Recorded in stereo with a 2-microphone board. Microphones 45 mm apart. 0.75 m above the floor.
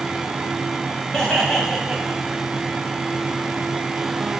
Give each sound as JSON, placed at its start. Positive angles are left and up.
{"t": 1.1, "sound": "laughter", "side_deg": 15, "distance_m": 4.0}